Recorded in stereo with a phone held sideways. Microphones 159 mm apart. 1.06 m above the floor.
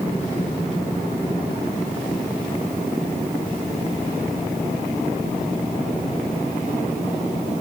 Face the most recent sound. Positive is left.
No sound to turn to.